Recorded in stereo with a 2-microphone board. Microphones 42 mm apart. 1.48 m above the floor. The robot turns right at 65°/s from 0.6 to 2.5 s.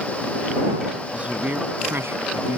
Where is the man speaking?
155° right; by 2.6 s 65° right.